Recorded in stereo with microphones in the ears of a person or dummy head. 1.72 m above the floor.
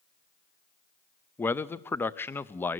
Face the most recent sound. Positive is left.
turn(degrees=10)  # may be behind; listen again after turning